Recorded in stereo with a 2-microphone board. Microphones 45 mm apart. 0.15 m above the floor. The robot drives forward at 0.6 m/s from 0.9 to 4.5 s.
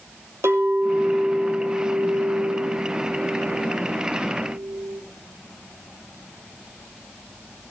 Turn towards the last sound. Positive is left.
turn(degrees=-55)  # may be behind; listen again after turning